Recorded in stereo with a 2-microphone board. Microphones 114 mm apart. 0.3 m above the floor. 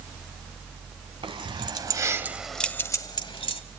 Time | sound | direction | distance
1.2 | keys jangling | 50° right (ahead or behind) | 1.5 m